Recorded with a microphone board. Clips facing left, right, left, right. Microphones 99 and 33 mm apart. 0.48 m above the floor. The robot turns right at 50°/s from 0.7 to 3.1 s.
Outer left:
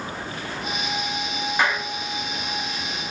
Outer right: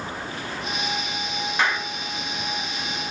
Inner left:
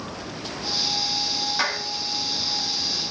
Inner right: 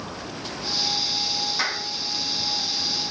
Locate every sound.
1.6 s a clap: 10° left (ahead or behind), 3 m; by 1.9 s 5° right (ahead or behind), 3 m